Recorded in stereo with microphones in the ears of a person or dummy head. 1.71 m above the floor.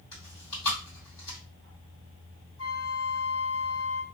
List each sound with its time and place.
0.1 s chewing: 25° left (ahead or behind), 1.8 m
2.6 s a flute: 70° left (ahead or behind), 0.9 m